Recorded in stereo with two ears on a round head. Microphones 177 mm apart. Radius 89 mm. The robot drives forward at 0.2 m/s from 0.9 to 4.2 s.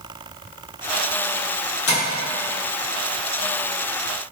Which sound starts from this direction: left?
Tapping, at 1.9 s.